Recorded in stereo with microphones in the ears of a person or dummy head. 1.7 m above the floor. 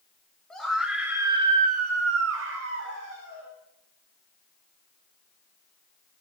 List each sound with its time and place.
0.5 s a scream: 10° left (ahead or behind), 2.5 m; by 3.5 s 65° right (ahead or behind), 3 m